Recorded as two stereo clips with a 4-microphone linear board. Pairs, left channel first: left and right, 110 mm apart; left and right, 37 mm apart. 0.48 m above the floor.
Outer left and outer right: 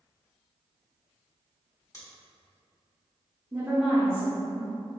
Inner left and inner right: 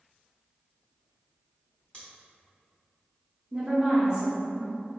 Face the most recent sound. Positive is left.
turn(degrees=-20)  # may be behind; listen again after turning